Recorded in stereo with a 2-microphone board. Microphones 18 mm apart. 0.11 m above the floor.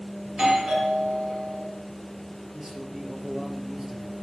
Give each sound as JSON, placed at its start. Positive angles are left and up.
{"t": 0.2, "sound": "a doorbell", "side_deg": -35, "distance_m": 3.5}
{"t": 2.5, "sound": "a man speaking", "side_deg": -35, "distance_m": 2.5}